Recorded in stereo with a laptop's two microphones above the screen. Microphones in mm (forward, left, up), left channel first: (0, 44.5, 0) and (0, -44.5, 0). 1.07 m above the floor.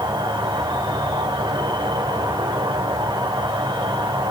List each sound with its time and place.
0.0 s an insect: 60° right (ahead or behind), 3.5 m